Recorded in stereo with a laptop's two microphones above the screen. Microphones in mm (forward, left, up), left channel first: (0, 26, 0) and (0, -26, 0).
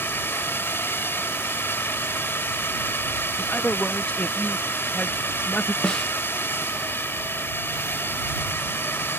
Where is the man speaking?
30° left (ahead or behind).